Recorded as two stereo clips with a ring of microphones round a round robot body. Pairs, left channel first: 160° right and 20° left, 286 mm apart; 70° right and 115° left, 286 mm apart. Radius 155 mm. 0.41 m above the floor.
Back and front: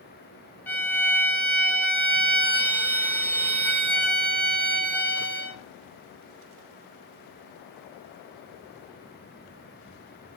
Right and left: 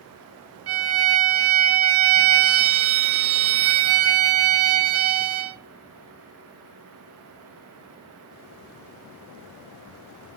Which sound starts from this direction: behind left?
A violin, at 0.7 s.